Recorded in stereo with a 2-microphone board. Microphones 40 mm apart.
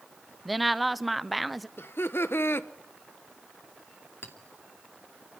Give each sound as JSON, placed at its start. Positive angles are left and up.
{"t": 0.5, "sound": "a woman speaking", "side_deg": 0, "distance_m": 0.7}
{"t": 1.8, "sound": "laughter", "side_deg": 65, "distance_m": 1.1}
{"t": 4.2, "sound": "a clink", "side_deg": 60, "distance_m": 2.5}